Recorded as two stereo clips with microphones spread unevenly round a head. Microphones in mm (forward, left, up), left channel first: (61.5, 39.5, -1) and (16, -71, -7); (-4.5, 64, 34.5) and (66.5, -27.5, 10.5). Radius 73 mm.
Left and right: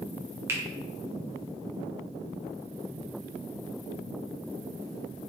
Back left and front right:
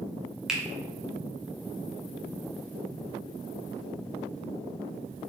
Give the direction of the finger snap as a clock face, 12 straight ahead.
3 o'clock.